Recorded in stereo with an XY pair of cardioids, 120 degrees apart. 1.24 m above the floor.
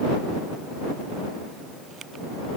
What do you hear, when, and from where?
Only background noise.